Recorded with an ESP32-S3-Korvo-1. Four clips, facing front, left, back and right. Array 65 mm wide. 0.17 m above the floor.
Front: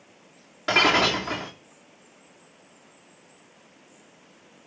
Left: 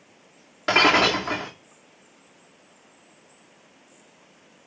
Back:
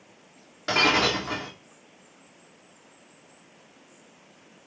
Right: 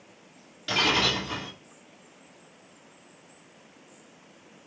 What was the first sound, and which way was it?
Breaking glass, 80° left.